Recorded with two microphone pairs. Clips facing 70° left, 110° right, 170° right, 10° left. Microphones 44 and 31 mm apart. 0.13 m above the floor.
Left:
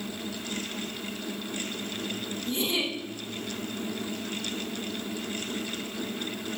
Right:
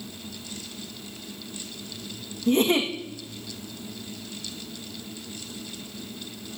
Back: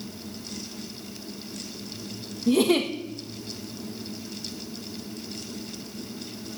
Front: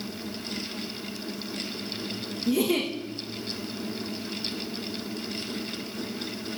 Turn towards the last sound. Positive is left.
turn(degrees=-150)